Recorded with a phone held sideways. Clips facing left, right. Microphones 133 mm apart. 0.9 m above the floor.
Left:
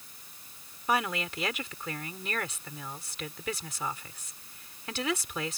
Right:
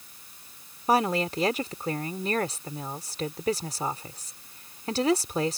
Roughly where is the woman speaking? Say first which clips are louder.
Right 6 dB; right.